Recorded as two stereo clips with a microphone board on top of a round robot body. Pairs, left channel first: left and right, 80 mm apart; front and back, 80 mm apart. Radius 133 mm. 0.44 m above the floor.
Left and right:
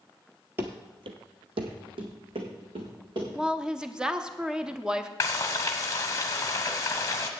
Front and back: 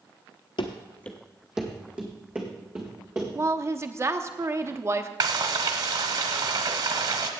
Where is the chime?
I don't hear a chime.